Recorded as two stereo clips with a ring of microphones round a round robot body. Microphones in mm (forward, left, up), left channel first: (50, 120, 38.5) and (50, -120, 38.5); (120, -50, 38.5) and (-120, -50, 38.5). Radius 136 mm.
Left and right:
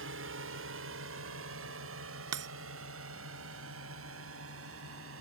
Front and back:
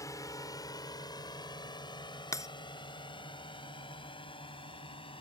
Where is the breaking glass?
75° right.